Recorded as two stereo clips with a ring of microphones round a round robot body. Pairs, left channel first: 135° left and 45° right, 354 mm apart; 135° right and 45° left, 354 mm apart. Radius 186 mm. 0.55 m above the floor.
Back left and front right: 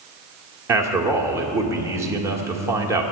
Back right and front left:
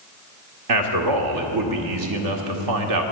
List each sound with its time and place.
0.7 s a man speaking: 35° left, 1.6 m